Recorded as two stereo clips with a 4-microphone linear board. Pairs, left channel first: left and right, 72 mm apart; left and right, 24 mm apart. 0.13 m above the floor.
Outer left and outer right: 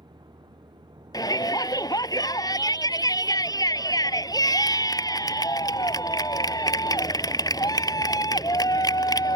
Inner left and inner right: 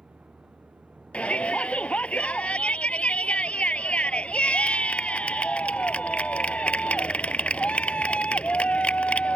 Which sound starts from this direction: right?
A vehicle, at 0.0 s.